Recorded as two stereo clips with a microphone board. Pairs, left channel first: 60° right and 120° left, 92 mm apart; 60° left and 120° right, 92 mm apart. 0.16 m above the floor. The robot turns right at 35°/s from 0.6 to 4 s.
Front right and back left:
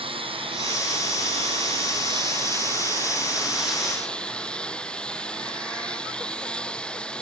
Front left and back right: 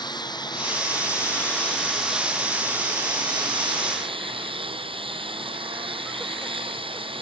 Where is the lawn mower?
100° left; by 7.2 s 140° right.